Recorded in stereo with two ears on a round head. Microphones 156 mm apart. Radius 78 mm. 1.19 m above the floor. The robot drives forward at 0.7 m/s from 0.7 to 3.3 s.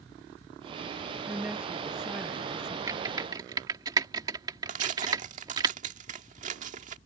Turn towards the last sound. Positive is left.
turn(degrees=-45)  # may be behind; listen again after turning